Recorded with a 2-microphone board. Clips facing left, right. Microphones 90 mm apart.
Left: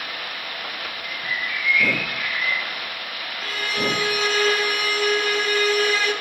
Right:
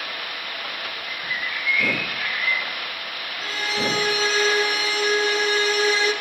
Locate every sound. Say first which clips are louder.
1.0 s a bird: left 2 dB; 55° right (ahead or behind), 7.5 m
3.4 s a violin: even; 30° right (ahead or behind), 3 m